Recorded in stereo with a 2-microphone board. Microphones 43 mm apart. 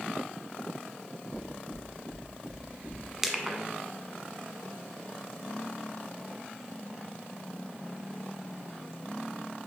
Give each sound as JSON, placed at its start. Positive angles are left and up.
{"t": 1.3, "sound": "knocking", "side_deg": -65, "distance_m": 4.0}
{"t": 3.2, "sound": "crushing", "side_deg": -10, "distance_m": 1.2}